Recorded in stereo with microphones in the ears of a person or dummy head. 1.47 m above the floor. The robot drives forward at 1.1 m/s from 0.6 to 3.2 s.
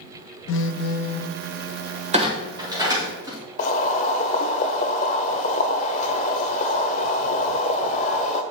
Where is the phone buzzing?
55° left (ahead or behind), 0.5 m; by 1.4 s 25° left (ahead or behind), 1.0 m.